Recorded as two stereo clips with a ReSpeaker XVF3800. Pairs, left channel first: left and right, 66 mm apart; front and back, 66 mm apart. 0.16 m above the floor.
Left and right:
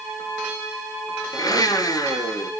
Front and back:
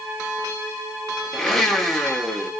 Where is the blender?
85° left, 0.9 m.